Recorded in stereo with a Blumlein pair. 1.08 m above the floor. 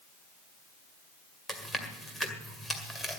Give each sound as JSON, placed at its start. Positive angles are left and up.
{"t": 1.5, "sound": "chewing", "azimuth_deg": 5, "distance_m": 1.9}